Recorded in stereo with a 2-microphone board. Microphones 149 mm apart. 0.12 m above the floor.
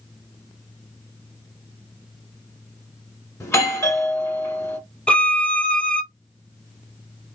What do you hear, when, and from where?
3.4 s a doorbell: 20° left (ahead or behind), 1.5 m
5.1 s a violin: 5° left (ahead or behind), 0.8 m